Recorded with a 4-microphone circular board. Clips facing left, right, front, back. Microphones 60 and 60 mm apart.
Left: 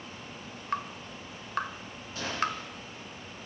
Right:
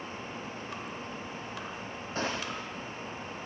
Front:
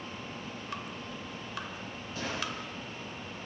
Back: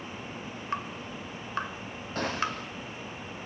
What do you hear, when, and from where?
0.7 s dripping: 125° left, 1.7 m
2.1 s a gunshot: 140° right, 6 m